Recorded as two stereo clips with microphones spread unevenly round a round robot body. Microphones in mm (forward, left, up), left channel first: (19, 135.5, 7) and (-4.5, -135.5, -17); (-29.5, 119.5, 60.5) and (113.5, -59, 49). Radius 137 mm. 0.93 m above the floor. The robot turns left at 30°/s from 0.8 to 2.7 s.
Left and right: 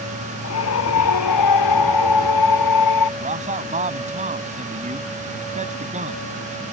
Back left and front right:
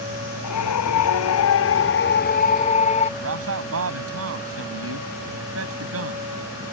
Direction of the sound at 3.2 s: 30° right.